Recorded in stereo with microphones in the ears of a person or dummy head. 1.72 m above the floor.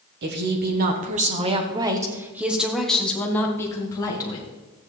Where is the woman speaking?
60° right (ahead or behind), 1.4 m; by 4.5 s 25° left (ahead or behind), 2 m.